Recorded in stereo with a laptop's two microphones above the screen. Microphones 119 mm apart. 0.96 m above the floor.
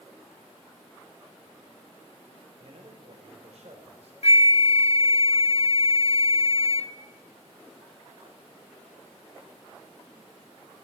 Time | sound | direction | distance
2.6 | a man speaking | 60° right (ahead or behind) | 4 m
4.2 | a flute | 60° left (ahead or behind) | 0.5 m